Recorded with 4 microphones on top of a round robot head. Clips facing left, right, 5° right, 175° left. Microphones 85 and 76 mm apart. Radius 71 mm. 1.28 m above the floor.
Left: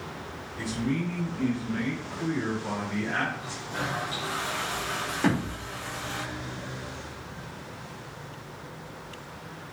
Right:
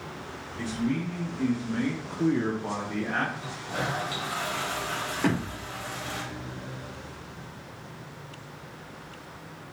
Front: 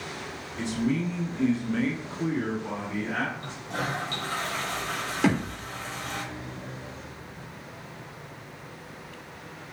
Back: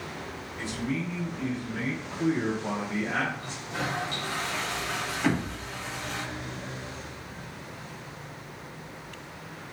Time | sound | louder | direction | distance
0.6 | a man speaking | even, front 5 dB | 5° left | 2.5 m
3.4 | a toilet flushing | right 1 dB, front 1 dB | 55° right | 1.0 m
5.2 | a thud | left 1 dB, front 3 dB | 5° left | 1.5 m